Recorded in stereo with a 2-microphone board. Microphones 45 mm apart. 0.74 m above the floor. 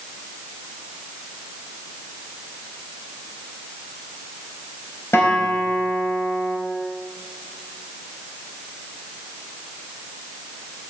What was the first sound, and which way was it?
A guitar, 80° left.